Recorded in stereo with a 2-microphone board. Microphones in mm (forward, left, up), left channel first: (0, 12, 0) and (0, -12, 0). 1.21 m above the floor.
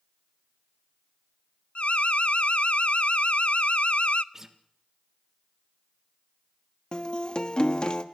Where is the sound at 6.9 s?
40° left (ahead or behind), 1.3 m.